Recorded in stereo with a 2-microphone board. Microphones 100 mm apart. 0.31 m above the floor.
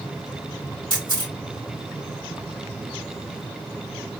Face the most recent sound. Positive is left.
turn(degrees=-45)  # may be behind; listen again after turning